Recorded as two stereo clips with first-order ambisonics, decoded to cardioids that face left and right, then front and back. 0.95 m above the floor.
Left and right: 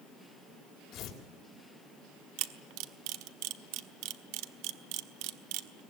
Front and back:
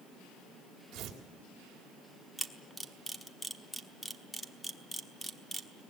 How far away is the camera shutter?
About 1.0 m.